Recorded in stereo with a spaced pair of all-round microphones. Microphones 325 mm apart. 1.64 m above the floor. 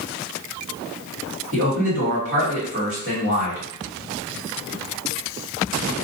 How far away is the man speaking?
About 1.8 m.